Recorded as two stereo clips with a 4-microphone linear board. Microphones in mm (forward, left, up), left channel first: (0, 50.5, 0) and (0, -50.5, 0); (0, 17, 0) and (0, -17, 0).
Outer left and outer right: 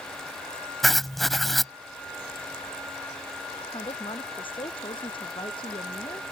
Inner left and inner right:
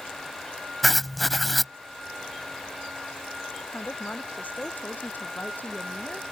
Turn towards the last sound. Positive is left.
turn(degrees=60)  # may be behind; listen again after turning